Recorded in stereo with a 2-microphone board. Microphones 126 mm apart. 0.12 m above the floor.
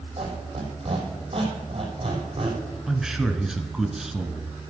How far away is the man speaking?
About 1.4 m.